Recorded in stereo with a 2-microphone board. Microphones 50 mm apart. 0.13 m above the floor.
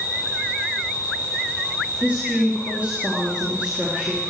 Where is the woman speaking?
30° right (ahead or behind), 2.5 m.